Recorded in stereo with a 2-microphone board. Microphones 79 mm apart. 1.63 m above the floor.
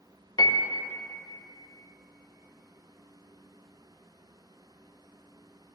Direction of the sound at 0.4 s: 60° left (ahead or behind).